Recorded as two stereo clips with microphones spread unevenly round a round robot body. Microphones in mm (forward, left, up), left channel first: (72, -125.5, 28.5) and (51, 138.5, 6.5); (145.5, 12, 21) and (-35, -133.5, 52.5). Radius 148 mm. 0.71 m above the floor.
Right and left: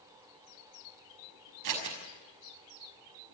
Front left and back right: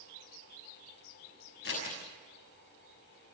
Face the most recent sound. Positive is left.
turn(degrees=90)